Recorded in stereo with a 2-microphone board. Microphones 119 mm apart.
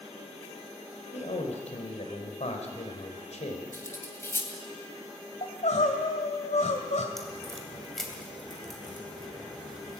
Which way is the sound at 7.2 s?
Centre (ahead or behind).